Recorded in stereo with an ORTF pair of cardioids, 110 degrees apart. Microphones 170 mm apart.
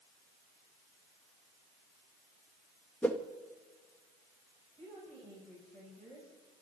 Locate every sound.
3.0 s a whoosh: 10° left, 1.5 m
4.8 s a woman speaking: 20° left, 7 m